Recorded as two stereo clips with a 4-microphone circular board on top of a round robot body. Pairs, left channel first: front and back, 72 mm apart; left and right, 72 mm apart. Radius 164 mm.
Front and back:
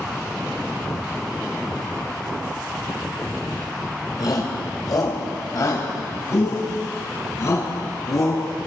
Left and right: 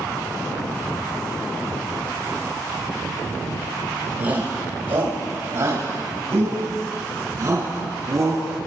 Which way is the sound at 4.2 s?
25° right.